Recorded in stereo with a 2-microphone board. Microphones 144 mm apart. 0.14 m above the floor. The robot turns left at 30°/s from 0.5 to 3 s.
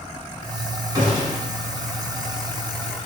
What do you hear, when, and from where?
0.9 s a gunshot: 30° right (ahead or behind), 1.1 m; by 1.4 s 35° right (ahead or behind), 1.1 m